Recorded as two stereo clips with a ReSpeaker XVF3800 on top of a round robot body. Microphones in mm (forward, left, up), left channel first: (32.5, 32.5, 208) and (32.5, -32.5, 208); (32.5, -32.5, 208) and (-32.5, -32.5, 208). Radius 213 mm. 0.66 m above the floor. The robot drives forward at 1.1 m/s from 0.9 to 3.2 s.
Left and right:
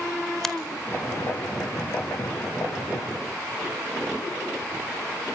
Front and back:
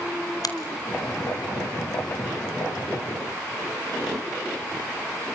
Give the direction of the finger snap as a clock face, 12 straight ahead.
12 o'clock.